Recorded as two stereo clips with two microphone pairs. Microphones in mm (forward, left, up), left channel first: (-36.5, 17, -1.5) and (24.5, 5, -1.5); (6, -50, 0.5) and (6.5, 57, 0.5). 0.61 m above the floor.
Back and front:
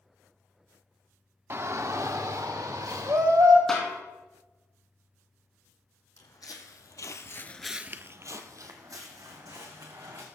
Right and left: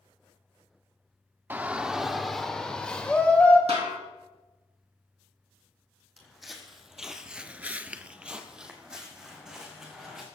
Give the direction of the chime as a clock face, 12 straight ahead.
I don't hear a chime.